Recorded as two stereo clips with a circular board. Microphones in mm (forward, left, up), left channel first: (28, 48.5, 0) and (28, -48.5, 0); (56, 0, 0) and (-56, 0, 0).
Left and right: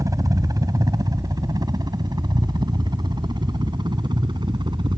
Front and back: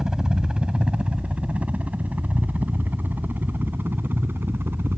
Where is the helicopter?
100° right; by 5.0 s 115° right.